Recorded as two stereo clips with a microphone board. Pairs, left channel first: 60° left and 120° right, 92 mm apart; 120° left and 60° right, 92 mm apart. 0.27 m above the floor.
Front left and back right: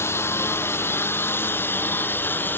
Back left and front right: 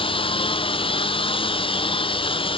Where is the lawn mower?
120° left; by 2.6 s 125° left.